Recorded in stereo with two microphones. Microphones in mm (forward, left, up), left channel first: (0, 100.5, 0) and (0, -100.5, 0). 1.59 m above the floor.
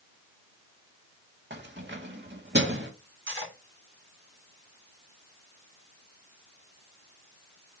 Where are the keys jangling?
65° right (ahead or behind), 1.7 m.